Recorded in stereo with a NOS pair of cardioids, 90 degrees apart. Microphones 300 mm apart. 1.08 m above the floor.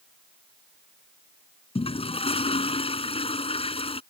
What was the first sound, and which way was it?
A toilet flushing, 20° left.